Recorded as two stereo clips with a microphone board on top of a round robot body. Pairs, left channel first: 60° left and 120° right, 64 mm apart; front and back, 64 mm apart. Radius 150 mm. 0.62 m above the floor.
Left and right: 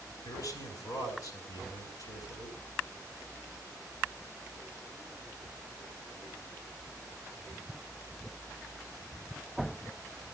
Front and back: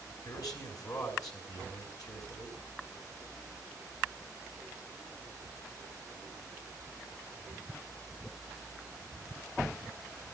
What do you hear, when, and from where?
0.2 s a man speaking: 30° left, 5 m